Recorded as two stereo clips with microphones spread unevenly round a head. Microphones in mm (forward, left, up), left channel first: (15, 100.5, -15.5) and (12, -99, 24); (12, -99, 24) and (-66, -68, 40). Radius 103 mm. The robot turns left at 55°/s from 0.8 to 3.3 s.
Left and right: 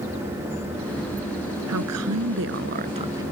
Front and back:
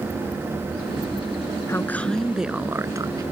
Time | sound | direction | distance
1.7 | a woman speaking | 80° right | ?